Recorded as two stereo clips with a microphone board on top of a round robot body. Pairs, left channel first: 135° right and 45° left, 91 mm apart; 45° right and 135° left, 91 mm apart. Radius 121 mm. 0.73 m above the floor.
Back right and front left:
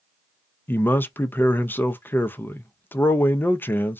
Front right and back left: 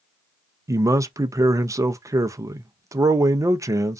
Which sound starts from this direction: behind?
A man speaking, at 0.7 s.